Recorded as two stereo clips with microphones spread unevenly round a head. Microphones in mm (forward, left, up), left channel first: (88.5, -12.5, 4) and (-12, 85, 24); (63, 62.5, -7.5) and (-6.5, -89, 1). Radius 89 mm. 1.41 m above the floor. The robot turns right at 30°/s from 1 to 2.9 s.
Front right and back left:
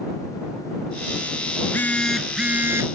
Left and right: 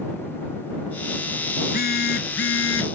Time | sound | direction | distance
1.6 | a phone buzzing | 30° left | ?